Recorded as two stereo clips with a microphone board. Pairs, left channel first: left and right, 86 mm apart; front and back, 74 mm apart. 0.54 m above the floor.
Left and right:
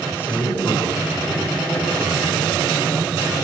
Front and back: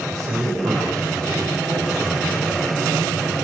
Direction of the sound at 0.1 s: 150° left.